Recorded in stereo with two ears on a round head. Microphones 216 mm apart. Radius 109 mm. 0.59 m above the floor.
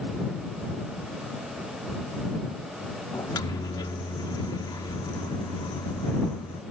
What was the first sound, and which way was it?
A microwave, 15° left (ahead or behind).